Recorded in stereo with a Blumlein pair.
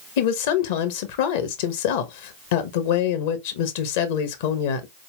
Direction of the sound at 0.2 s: 50° left.